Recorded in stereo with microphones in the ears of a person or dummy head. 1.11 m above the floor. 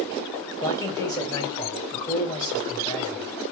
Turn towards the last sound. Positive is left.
turn(degrees=15)  # may be behind; listen again after turning